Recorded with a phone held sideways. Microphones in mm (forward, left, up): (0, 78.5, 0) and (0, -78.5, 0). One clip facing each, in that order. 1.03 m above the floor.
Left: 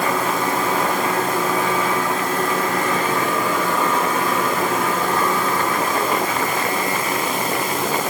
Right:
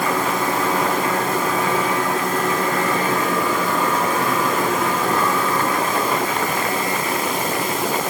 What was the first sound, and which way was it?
Only background noise.